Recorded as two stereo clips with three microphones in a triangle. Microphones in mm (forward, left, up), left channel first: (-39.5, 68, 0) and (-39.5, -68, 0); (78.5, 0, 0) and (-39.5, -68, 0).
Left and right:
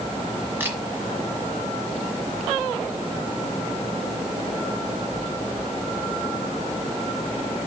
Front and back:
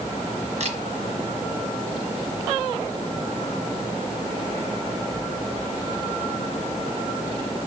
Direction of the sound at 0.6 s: 165° right.